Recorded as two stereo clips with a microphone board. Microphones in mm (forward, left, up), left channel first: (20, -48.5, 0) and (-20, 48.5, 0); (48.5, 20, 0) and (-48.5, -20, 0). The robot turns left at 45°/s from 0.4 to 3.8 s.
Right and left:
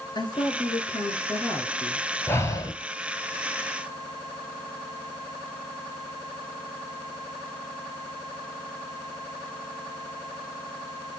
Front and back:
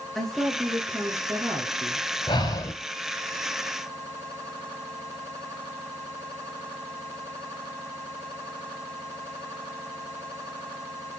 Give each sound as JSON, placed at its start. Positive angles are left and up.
{"t": 0.1, "sound": "a woman speaking", "azimuth_deg": -65, "distance_m": 1.6}
{"t": 2.3, "sound": "breathing", "azimuth_deg": -5, "distance_m": 0.8}